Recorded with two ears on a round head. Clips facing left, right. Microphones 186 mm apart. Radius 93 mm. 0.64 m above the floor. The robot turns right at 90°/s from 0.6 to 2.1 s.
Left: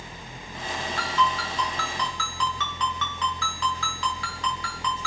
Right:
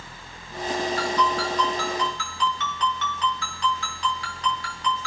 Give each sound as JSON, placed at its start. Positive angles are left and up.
{"t": 1.0, "sound": "a ringtone", "azimuth_deg": -35, "distance_m": 6.5}